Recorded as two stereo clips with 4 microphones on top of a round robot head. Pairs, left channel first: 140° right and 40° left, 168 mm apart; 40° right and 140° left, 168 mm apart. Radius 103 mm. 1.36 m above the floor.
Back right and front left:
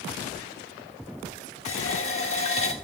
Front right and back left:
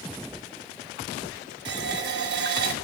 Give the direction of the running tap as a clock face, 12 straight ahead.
6 o'clock.